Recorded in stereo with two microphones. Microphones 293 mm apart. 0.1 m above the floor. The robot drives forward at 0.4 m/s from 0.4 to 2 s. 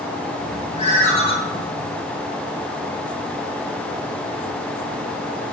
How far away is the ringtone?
About 1.1 m.